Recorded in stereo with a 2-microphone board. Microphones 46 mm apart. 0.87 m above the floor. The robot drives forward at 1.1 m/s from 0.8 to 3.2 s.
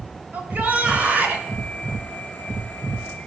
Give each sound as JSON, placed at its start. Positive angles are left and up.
{"t": 0.3, "sound": "a shout", "side_deg": -40, "distance_m": 3.5}